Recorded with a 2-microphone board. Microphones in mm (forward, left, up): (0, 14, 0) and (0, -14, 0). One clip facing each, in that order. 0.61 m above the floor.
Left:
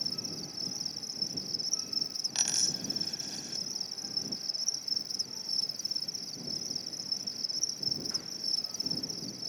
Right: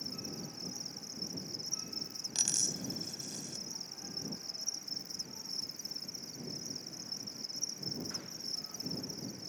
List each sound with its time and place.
0.0 s an insect: 70° left (ahead or behind)
2.4 s a dropped coin: 30° left (ahead or behind)